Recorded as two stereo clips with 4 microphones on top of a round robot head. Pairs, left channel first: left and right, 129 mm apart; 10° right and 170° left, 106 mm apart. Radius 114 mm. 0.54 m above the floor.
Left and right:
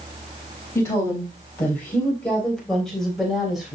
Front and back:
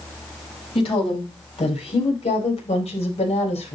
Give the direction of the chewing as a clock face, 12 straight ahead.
I don't hear chewing.